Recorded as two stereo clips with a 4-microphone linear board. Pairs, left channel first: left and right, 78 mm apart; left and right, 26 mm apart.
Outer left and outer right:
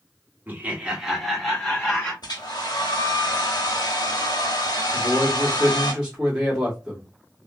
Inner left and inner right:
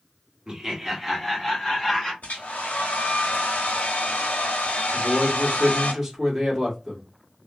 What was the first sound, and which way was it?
Laughter, 30° right (ahead or behind).